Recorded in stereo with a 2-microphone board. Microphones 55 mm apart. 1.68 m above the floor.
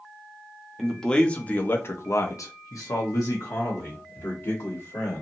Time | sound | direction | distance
0.8 | a man speaking | 10° left (ahead or behind) | 0.8 m